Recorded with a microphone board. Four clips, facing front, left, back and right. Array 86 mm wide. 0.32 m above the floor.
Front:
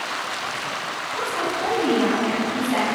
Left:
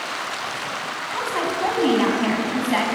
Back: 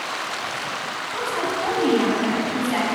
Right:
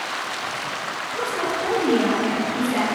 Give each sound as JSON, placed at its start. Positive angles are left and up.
{"t": 1.1, "sound": "a woman speaking", "azimuth_deg": 90, "distance_m": 2.0}